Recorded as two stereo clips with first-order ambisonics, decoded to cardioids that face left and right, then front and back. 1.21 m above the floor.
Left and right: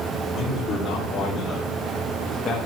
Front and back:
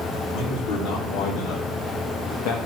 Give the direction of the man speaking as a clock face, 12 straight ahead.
11 o'clock.